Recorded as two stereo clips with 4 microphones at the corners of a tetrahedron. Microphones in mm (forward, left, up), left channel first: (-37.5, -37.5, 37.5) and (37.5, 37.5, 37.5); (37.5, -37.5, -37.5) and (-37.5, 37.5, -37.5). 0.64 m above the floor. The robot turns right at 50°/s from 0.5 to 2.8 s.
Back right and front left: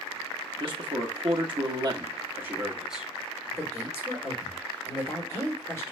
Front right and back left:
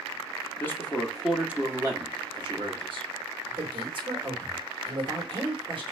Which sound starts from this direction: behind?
A man speaking, at 3.5 s.